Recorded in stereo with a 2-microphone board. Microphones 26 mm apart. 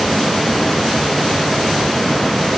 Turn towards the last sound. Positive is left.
No sound to turn to.